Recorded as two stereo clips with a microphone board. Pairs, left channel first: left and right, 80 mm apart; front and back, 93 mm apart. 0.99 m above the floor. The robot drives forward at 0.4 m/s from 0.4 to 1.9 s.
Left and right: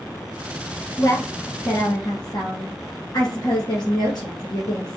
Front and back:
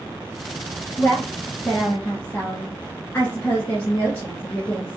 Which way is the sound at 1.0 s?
50° left.